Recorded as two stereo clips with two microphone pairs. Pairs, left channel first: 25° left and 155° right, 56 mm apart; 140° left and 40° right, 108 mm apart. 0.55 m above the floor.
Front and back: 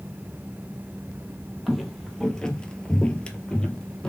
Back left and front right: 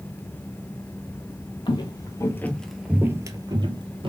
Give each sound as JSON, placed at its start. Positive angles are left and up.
{"t": 1.7, "sound": "footsteps", "azimuth_deg": 110, "distance_m": 0.8}